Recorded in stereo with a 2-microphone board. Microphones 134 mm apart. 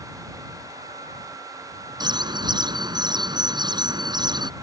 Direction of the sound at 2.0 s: 30° right (ahead or behind).